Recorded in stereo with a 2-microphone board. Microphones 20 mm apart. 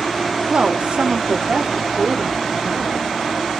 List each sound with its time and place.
0.5 s a woman speaking: 55° right (ahead or behind), 1.7 m; by 3.0 s 35° right (ahead or behind), 3.5 m